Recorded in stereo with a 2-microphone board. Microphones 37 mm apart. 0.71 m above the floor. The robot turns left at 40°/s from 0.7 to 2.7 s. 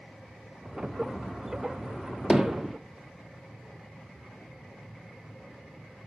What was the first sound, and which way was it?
Hammering, 20° right (ahead or behind).